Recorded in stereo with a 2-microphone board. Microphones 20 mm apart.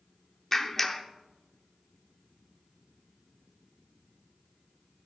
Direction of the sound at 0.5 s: 15° left (ahead or behind).